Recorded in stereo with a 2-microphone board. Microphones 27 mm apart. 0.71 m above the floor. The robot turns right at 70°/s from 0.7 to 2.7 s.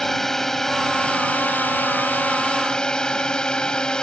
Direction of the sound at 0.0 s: 10° left.